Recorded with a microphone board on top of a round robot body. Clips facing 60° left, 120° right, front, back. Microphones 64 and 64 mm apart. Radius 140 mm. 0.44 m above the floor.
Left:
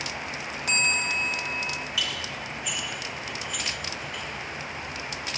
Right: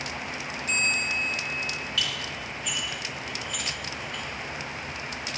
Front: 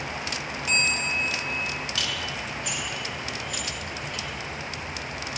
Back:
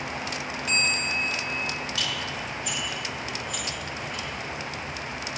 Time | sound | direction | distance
0.7 | a bell | 85° left | 0.7 m
2.0 | dishes clattering | 25° right | 4.5 m